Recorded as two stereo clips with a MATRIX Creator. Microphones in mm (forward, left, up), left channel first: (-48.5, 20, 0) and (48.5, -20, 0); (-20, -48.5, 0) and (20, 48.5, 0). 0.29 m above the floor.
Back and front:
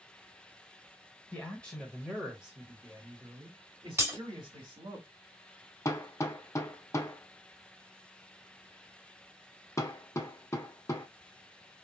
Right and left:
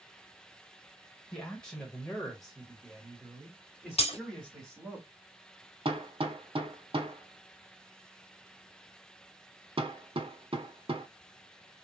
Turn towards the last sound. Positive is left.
turn(degrees=95)